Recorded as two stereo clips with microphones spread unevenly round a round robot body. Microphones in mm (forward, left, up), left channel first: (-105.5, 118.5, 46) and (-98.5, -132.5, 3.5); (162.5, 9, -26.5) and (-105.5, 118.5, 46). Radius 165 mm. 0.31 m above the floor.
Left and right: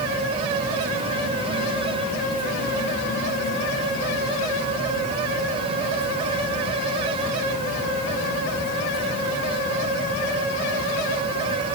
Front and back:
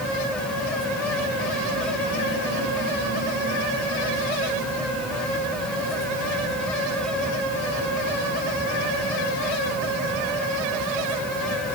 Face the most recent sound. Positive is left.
No sound to turn to.